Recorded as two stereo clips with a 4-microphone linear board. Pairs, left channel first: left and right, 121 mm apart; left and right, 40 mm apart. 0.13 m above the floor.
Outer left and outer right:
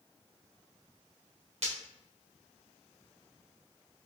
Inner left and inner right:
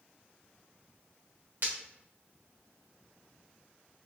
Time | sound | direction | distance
1.6 | breaking glass | 55° right (ahead or behind) | 2 m